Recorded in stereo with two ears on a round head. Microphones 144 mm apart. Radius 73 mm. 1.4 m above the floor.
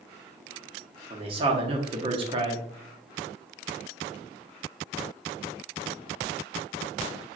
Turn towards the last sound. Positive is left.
turn(degrees=-30)  # may be behind; listen again after turning